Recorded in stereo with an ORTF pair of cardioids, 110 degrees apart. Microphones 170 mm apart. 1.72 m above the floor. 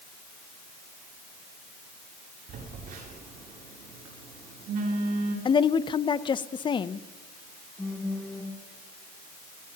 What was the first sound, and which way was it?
A phone buzzing, 60° right.